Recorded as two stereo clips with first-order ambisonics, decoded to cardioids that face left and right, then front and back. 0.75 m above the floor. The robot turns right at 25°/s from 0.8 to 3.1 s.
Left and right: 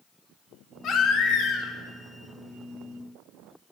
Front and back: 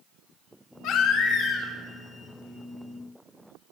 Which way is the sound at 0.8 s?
40° left.